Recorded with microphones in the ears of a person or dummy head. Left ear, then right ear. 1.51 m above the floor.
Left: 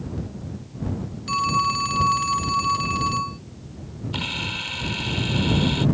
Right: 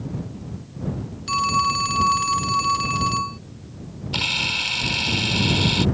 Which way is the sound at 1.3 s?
10° right (ahead or behind).